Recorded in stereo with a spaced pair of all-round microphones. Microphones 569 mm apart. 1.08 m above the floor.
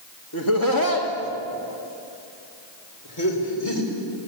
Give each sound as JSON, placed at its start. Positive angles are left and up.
{"t": 0.3, "sound": "laughter", "side_deg": 40, "distance_m": 2.5}